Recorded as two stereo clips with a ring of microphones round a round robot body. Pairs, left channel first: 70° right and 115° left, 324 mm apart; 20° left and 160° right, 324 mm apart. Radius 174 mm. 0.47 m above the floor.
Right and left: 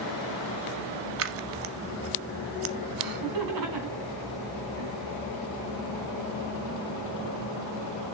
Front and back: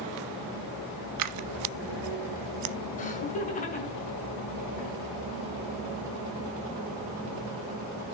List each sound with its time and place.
1.2 s scissors: 165° left, 0.9 m
3.0 s laughter: 90° left, 5.5 m